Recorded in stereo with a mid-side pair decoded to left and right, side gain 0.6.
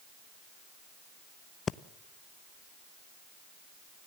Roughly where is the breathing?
Ahead left.